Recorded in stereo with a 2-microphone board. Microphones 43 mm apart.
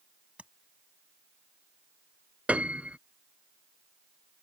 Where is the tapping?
30° right (ahead or behind).